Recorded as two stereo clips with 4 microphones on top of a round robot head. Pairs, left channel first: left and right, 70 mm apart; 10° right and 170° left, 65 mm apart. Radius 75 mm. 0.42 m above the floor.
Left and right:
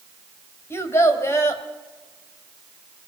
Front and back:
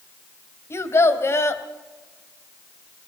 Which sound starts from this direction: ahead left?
A child speaking, at 0.7 s.